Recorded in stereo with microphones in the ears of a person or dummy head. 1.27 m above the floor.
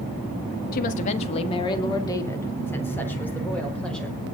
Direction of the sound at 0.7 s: 45° left (ahead or behind).